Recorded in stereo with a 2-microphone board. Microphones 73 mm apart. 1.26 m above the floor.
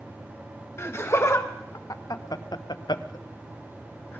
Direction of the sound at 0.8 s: 35° left (ahead or behind).